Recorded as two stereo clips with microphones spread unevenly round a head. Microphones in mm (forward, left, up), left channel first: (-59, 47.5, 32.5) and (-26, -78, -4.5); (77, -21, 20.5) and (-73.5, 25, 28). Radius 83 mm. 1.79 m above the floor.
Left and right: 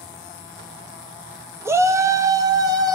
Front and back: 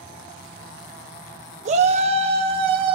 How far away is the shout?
About 1.4 m.